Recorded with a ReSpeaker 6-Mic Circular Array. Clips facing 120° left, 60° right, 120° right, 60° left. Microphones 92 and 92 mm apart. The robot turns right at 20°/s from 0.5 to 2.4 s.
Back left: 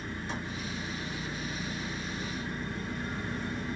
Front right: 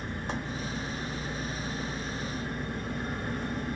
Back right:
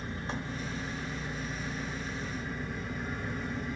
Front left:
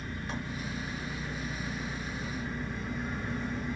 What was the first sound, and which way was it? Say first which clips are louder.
An engine running: front right 2 dB, back right 1 dB; 65° right.